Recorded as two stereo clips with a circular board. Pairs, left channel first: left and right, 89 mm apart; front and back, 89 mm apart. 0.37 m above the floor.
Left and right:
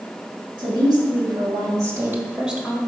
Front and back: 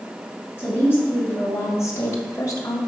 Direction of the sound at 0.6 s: 65° right.